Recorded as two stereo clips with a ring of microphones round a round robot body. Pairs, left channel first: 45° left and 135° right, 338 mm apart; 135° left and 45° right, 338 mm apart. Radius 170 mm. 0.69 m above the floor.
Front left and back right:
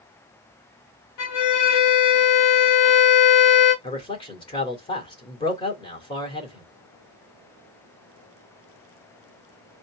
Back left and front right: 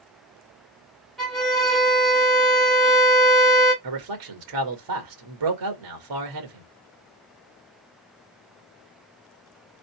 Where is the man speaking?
30° right, 2.5 m.